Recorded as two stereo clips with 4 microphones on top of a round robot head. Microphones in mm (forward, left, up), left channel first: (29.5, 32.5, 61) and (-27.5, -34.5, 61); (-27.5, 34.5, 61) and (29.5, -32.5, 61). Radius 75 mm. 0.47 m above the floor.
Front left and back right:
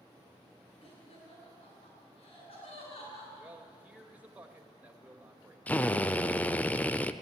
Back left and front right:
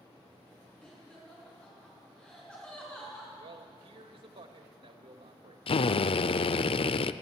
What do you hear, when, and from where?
0.8 s laughter: 50° left, 7.5 m
3.4 s a man speaking: 55° right, 2 m
5.7 s a drill: 125° left, 0.7 m